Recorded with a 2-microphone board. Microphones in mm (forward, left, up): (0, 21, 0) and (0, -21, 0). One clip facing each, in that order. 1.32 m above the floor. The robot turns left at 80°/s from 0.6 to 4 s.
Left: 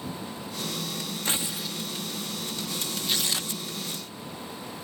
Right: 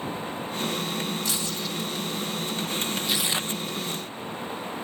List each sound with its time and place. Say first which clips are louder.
1.2 s tearing paper: right 1 dB; 40° left; by 1.8 s 5° right
3.0 s tearing paper: right 3 dB; straight ahead; by 3.6 s 45° right